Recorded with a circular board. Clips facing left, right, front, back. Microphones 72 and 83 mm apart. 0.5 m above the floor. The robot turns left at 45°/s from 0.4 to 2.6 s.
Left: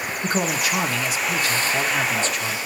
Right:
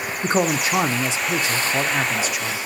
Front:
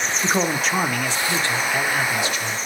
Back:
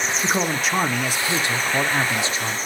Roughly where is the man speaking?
Right.